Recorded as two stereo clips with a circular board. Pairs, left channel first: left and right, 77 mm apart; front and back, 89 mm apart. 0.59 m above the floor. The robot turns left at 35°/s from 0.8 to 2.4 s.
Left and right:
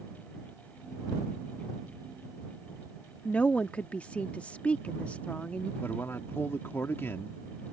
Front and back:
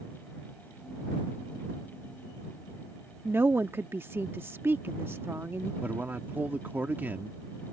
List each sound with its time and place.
3.2 s a woman speaking: 145° left
5.8 s a man speaking: 130° left